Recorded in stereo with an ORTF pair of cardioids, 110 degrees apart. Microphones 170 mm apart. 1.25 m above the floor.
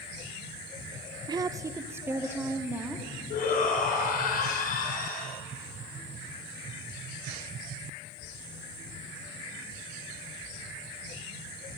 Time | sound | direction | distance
1.3 | a woman speaking | 25° right | 0.6 m
3.3 | a shout | 55° left | 5.5 m